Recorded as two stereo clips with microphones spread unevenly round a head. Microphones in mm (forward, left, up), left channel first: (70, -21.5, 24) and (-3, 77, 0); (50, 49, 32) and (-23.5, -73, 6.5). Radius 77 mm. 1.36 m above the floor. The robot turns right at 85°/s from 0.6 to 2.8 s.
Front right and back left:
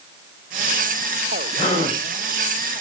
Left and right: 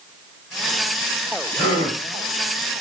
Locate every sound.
1.6 s a gasp: 105° right, 2.5 m; by 2.0 s 70° right, 2.5 m